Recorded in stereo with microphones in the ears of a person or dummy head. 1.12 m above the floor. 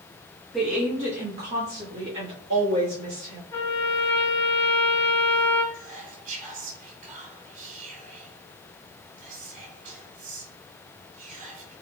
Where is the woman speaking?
Centre (ahead or behind), 0.9 m; by 3.4 s 80° right, 2.5 m.